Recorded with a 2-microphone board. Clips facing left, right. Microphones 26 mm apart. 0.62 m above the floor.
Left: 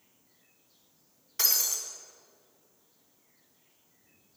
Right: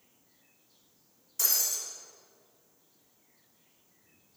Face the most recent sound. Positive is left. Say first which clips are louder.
# left 2 dB
turn(degrees=45)  # may be behind; listen again after turning